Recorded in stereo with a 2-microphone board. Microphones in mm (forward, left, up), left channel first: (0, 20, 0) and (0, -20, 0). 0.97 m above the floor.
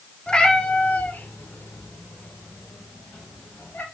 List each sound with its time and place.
0.3 s a cat meowing: 20° left (ahead or behind), 1.1 m; by 3.9 s 45° left (ahead or behind), 2.5 m